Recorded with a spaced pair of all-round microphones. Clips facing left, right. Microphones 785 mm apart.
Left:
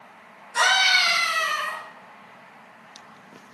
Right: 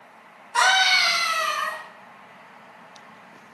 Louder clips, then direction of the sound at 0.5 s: Right 2 dB; 35° right (ahead or behind).